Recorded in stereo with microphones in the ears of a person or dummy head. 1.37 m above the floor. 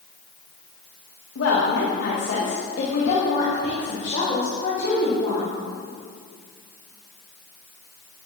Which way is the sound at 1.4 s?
80° left.